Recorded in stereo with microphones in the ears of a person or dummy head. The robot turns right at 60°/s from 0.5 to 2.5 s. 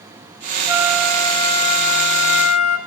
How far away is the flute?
About 1.9 m.